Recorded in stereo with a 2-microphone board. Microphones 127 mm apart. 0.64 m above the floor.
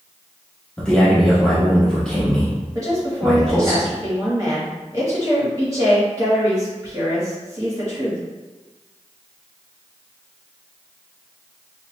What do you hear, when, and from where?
0.8 s a man speaking: 5° left (ahead or behind), 1.0 m
2.8 s a woman speaking: 25° right (ahead or behind), 1.0 m